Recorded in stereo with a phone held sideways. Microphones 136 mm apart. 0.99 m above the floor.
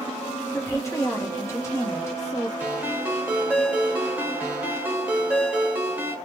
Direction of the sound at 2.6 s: 10° right (ahead or behind).